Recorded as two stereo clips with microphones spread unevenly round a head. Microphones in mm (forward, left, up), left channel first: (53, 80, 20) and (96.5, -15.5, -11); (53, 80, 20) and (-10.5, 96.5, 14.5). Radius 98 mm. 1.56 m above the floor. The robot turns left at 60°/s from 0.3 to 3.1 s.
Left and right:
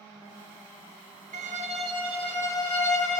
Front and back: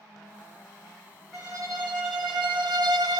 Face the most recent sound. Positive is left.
turn(degrees=150)